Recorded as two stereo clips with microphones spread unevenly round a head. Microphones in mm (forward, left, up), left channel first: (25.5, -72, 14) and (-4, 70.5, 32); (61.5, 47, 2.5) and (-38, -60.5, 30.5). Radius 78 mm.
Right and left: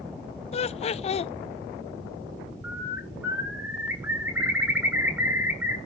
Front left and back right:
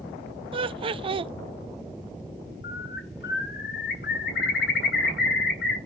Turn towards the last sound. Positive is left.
turn(degrees=25)